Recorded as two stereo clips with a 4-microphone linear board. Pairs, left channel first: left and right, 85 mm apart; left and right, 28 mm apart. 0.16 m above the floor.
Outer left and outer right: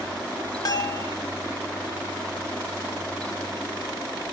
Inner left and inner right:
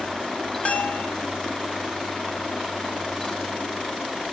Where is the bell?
45° left (ahead or behind), 1.1 m.